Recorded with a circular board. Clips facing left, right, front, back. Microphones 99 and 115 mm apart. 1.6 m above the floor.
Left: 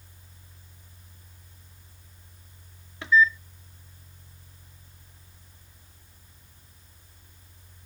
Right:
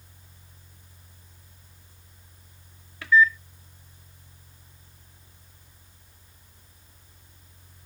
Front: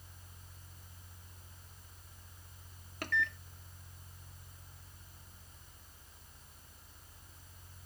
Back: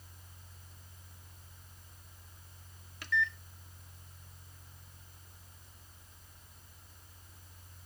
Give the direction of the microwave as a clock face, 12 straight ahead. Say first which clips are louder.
Right 1 dB, back 1 dB; 11 o'clock.